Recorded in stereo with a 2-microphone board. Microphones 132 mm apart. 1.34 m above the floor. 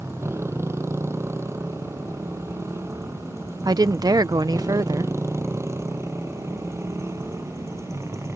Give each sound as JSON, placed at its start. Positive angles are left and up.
{"t": 0.0, "sound": "a motorcycle", "side_deg": -20}
{"t": 3.6, "sound": "a woman speaking", "side_deg": -30}